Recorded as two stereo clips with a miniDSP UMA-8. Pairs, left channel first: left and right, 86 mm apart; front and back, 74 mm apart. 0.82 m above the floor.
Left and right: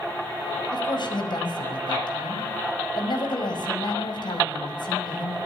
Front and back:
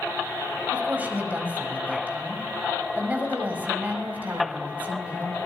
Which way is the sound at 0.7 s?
110° left.